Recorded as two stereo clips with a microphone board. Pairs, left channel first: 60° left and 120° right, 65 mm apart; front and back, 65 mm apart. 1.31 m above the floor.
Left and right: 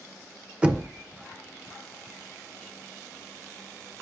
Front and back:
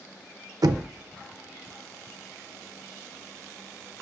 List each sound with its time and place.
0.6 s knocking: 165° left, 0.7 m